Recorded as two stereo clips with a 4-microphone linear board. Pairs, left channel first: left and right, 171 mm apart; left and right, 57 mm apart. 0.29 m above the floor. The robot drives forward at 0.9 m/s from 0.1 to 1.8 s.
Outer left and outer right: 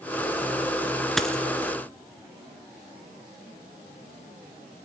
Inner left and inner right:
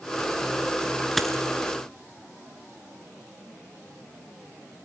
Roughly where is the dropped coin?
Centre.